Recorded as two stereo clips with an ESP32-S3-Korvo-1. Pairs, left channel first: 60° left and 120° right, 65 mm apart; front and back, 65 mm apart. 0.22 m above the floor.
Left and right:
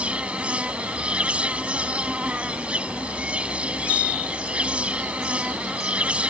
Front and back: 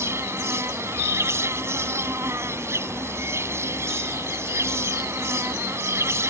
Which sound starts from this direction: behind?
An insect, at 0.0 s.